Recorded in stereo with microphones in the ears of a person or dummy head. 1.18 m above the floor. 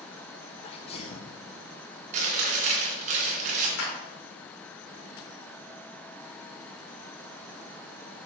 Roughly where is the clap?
Left.